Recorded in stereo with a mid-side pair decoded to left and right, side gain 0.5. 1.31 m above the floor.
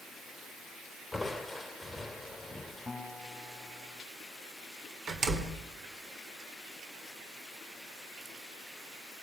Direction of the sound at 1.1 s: 5° left.